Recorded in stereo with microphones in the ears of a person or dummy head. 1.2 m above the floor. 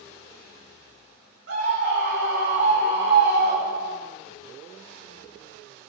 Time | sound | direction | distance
1.5 | a scream | 75° right (ahead or behind) | 7 m